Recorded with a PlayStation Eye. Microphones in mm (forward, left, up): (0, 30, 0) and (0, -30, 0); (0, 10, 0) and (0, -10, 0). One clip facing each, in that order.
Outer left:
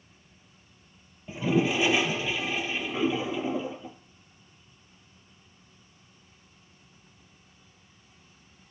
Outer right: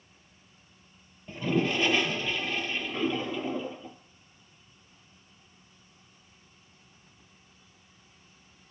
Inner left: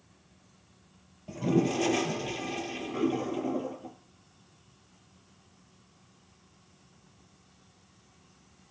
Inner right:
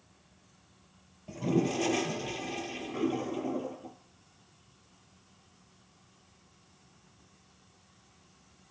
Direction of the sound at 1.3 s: 5° left (ahead or behind).